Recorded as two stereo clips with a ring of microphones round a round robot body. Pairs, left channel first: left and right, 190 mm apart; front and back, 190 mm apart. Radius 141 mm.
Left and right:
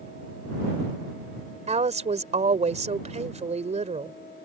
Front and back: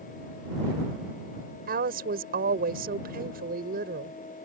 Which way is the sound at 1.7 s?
140° right.